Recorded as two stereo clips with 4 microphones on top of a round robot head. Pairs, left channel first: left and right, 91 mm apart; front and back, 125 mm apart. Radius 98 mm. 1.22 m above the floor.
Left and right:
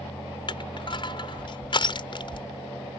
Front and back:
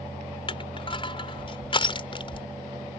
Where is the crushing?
55° left.